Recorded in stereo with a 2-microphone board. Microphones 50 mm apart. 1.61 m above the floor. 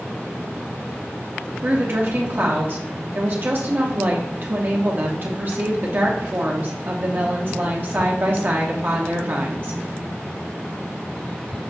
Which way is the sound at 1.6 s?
45° right (ahead or behind).